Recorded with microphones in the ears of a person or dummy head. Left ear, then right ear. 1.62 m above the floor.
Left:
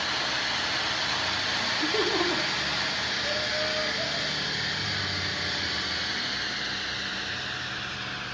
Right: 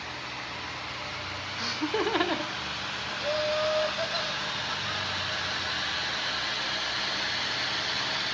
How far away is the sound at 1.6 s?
About 0.8 m.